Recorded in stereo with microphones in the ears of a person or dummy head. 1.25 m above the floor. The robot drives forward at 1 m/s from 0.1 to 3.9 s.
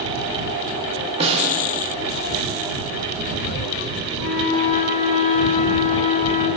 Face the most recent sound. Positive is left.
turn(degrees=35)  # may be behind; listen again after turning